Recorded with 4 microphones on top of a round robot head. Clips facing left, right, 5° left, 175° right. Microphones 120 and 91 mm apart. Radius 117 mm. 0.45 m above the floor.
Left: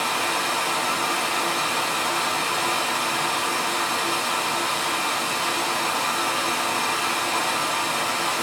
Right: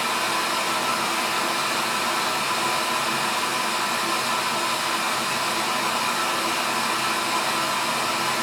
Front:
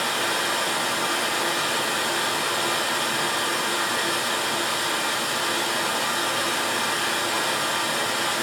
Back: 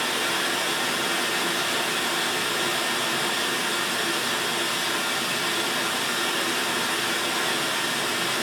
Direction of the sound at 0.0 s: 5° left.